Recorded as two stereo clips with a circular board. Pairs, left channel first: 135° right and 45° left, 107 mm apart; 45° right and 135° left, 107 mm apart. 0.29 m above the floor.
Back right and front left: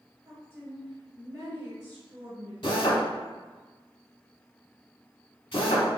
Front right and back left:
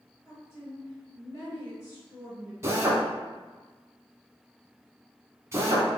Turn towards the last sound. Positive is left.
turn(degrees=-165)